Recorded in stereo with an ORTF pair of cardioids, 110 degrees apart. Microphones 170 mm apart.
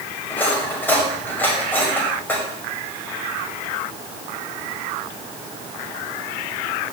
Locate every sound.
0.3 s cutlery clinking: 10° left, 6 m